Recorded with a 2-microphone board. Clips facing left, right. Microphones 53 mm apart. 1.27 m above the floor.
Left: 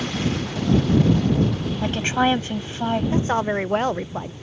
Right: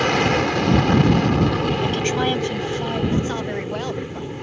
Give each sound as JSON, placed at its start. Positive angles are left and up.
{"t": 0.0, "sound": "an aircraft", "side_deg": -70}
{"t": 1.8, "sound": "a woman speaking", "side_deg": 25}
{"t": 3.1, "sound": "a woman speaking", "side_deg": 35}